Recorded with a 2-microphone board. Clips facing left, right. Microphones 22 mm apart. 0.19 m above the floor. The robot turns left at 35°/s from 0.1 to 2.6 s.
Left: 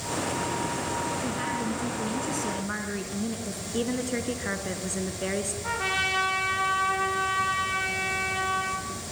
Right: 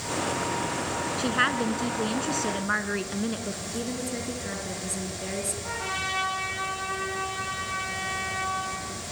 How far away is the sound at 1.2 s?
About 1.9 m.